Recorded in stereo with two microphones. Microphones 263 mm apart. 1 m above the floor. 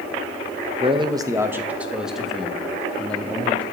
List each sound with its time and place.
0.8 s a man speaking: 25° right (ahead or behind), 0.6 m; by 3.6 s 5° left (ahead or behind), 1.9 m